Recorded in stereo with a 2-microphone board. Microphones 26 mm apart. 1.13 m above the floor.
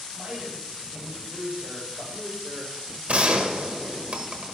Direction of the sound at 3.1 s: 65° right (ahead or behind).